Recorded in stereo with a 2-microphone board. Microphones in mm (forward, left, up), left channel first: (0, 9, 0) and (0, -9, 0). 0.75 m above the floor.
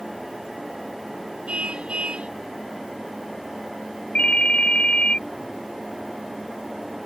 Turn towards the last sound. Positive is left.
turn(degrees=65)  # may be behind; listen again after turning